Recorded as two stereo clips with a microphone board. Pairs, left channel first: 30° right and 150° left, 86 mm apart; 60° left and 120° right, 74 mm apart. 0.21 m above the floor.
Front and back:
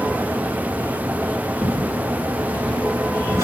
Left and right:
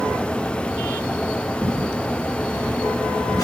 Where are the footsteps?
130° left, 2.5 m; by 3.5 s 95° left, 2.5 m.